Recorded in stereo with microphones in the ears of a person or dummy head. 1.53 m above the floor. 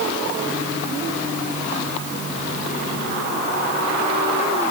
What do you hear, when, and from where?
Only background noise.